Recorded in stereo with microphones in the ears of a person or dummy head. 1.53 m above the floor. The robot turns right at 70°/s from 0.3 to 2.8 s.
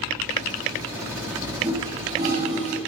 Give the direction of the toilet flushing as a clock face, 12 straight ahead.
6 o'clock.